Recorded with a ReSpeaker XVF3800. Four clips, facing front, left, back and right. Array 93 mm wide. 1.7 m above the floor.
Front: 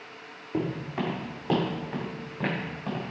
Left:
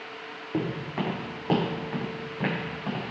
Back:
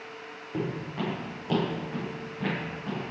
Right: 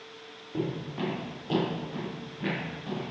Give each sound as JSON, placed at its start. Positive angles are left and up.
{"t": 0.5, "sound": "footsteps", "azimuth_deg": 70, "distance_m": 3.5}